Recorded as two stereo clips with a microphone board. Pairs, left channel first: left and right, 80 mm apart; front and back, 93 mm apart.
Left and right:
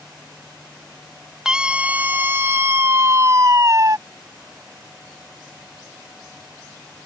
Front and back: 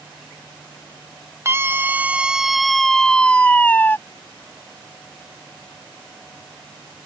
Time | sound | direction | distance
1.4 | a scream | 160° right | ?